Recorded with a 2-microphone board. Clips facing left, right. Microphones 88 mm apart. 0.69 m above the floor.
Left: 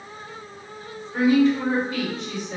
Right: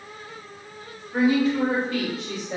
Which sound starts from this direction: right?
A woman speaking, at 1.1 s.